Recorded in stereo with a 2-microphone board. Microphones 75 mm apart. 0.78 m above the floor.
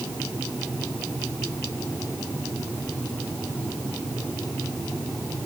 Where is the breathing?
I don't hear breathing.